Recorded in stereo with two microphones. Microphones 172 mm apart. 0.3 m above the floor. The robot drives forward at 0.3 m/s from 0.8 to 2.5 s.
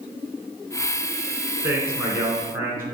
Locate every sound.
1.6 s a man speaking: 15° right (ahead or behind), 3.5 m